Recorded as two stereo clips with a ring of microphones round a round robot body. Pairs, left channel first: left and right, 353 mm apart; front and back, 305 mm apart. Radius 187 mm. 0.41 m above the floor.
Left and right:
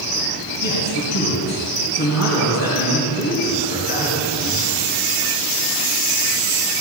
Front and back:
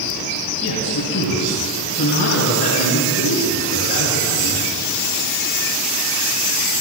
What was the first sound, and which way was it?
A man speaking, 45° left.